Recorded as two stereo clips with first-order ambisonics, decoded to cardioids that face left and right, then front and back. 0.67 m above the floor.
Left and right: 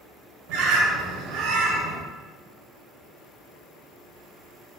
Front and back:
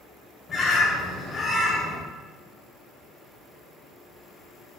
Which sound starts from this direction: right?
A bird, at 0.5 s.